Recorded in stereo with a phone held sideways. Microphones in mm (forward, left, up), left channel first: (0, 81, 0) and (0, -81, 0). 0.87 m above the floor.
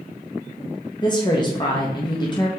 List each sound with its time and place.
1.0 s a woman speaking: 25° left (ahead or behind), 0.6 m